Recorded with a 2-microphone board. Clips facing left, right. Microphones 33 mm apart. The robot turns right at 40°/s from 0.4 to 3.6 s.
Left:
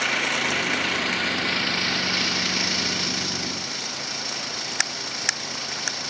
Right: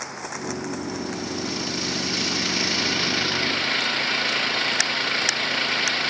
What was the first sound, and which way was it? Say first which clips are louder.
An engine running: left 9 dB; 95° left.